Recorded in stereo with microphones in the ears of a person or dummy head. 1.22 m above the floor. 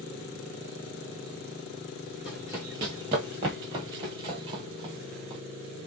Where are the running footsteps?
10° right (ahead or behind), 1.3 m; by 5.4 s 30° right (ahead or behind), 1.9 m.